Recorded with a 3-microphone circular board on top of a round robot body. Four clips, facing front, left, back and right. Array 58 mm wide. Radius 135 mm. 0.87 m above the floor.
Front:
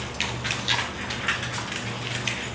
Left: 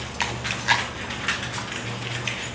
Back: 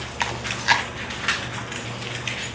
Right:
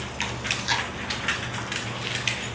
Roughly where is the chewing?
Behind left.